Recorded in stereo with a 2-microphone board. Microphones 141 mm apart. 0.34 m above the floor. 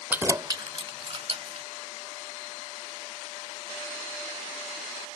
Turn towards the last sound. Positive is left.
turn(degrees=-45)  # may be behind; listen again after turning